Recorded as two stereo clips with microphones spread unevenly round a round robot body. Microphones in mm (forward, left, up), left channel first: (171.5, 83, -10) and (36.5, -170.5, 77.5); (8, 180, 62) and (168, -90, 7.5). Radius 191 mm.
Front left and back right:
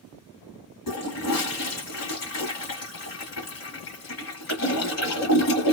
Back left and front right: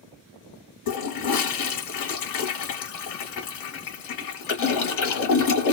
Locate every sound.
0.9 s a toilet flushing: 125° left, 1.0 m